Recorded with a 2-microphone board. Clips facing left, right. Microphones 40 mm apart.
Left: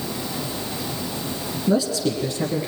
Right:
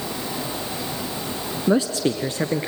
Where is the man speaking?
40° right (ahead or behind), 1.4 m.